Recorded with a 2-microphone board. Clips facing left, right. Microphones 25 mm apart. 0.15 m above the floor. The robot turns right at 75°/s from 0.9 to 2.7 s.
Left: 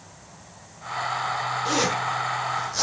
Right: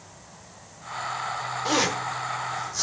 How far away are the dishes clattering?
I don't hear dishes clattering.